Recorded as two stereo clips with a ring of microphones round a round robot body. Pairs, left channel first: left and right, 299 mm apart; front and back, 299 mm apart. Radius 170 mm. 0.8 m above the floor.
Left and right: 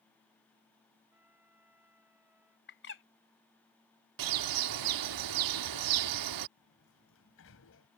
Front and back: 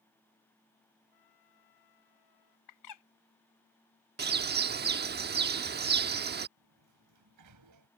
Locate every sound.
1.1 s a trumpet: 5° right
2.7 s a bird: 35° left
4.2 s a bird: 120° right
6.6 s a sliding door: 145° left